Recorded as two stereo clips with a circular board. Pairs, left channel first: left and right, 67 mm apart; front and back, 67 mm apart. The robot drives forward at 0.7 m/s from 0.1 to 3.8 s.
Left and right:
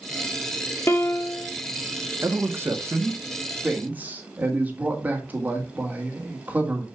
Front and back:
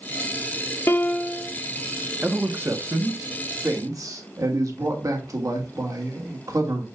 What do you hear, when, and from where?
0.9 s a piano: 45° left, 0.7 m; by 1.5 s 100° left, 0.5 m
2.2 s a man speaking: 115° right, 1.0 m; by 6.8 s 155° right, 1.7 m